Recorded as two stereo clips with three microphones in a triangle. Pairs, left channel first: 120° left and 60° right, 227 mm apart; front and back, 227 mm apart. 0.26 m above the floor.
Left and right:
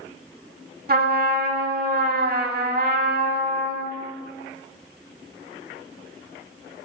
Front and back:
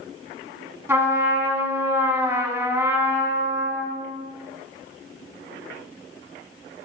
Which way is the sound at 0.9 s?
105° right.